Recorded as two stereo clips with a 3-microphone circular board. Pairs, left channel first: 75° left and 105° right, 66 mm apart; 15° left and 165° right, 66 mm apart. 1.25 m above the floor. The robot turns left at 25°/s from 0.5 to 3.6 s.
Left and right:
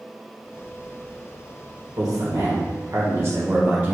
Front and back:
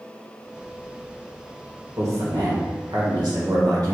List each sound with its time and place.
2.0 s a man speaking: 125° right, 1.5 m; by 4.0 s 165° right, 1.5 m